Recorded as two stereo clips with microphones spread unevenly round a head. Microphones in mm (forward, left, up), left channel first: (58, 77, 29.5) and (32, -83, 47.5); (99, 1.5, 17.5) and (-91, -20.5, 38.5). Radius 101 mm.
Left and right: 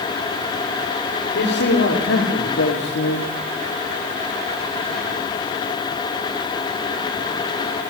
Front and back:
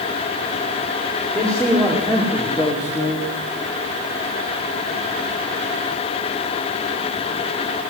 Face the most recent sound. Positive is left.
turn(degrees=80)